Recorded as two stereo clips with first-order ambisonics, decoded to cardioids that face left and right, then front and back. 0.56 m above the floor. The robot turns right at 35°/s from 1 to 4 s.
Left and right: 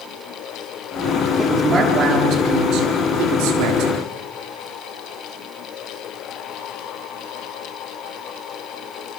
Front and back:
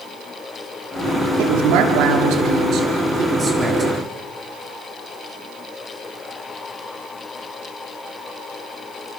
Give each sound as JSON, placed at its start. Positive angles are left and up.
{"t": 1.4, "sound": "a woman speaking", "azimuth_deg": 180, "distance_m": 7.0}